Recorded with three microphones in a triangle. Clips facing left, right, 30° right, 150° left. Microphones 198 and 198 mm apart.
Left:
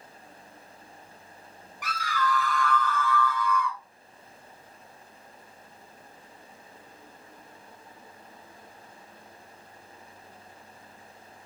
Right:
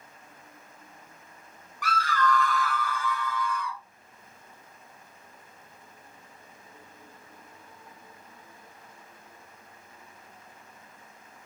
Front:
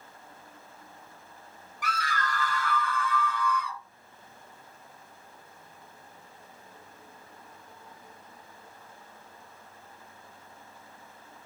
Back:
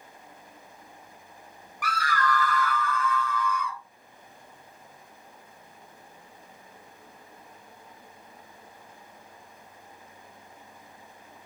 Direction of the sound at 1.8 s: 30° left.